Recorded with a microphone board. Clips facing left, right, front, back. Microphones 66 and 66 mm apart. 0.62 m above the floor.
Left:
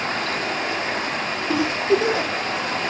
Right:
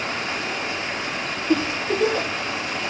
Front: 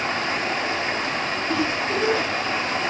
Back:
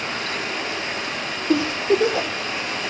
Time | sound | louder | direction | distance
0.0 | running water | left 3 dB, front 3 dB | 55° left | 4.5 m
1.5 | a giggle | left 2 dB, back 7 dB | 170° left | 6.5 m